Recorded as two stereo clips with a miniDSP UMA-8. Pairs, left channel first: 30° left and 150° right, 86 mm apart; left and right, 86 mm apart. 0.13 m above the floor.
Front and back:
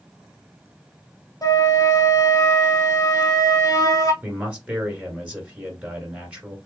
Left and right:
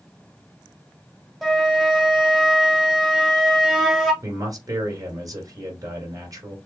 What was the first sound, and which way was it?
A flute, 5° left.